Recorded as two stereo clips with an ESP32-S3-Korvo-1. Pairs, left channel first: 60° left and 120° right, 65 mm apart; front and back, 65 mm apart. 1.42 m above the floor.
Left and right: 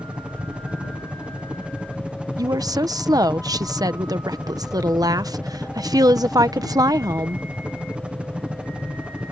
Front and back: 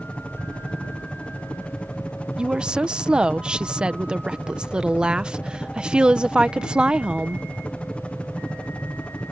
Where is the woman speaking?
105° right.